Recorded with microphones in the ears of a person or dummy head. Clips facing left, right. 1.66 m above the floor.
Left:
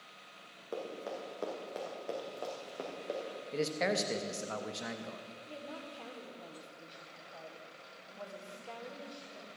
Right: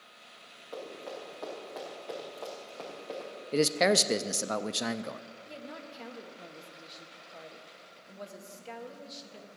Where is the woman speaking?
25° right (ahead or behind), 1.5 m.